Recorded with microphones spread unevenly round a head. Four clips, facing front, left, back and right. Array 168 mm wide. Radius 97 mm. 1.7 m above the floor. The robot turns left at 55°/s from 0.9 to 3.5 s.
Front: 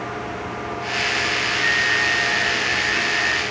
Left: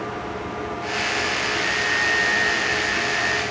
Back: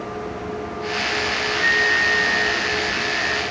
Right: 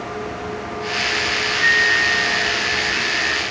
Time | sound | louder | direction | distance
1.6 | a flute | right 5 dB, back 3 dB | 105° right | ?